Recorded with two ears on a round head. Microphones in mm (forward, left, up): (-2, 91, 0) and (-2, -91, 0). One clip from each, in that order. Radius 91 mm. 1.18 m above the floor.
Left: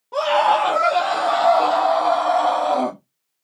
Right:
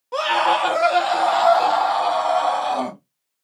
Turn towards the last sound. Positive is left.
turn(degrees=-35)  # may be behind; listen again after turning